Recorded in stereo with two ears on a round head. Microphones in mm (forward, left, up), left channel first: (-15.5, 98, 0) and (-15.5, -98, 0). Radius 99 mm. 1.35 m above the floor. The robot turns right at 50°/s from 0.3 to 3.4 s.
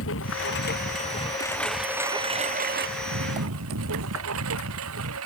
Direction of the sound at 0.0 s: 70° left (ahead or behind).